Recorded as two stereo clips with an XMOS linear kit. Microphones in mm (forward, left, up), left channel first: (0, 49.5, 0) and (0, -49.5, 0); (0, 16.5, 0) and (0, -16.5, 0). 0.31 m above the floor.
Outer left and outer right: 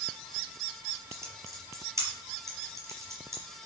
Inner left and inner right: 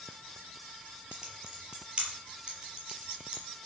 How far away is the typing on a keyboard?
About 5 m.